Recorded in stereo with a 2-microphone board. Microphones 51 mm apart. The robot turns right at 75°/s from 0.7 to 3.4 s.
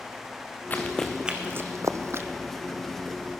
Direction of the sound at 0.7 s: 35° left (ahead or behind).